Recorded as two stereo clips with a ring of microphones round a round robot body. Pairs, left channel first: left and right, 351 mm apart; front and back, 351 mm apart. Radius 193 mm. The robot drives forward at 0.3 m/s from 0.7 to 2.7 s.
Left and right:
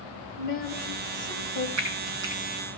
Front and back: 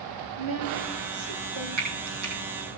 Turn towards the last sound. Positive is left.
turn(degrees=-145)